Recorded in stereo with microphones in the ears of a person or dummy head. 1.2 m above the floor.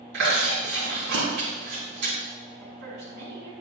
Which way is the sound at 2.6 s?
70° right (ahead or behind).